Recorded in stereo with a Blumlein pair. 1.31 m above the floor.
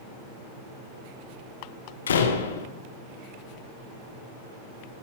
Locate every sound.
2.1 s a door slam: 65° left, 0.9 m